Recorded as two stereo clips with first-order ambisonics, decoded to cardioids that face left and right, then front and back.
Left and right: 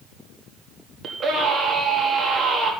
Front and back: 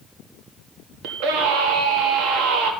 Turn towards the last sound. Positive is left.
turn(degrees=-155)